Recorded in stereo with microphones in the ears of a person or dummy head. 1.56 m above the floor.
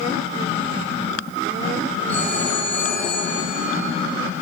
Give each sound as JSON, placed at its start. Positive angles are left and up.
{"t": 2.1, "sound": "a phone ringing", "side_deg": 10, "distance_m": 9.5}